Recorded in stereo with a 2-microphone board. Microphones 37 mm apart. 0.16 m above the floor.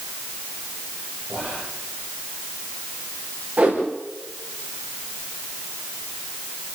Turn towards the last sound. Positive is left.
turn(degrees=-40)  # may be behind; listen again after turning